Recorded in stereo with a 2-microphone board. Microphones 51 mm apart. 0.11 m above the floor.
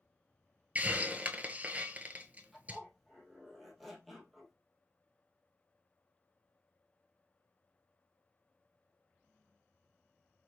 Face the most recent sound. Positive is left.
turn(degrees=0)  # may be behind; listen again after turning